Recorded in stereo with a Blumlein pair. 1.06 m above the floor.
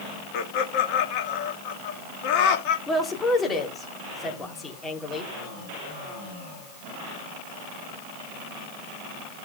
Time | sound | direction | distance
0.3 | laughter | 40° left | 1.7 m
2.9 | a woman speaking | 15° left | 3 m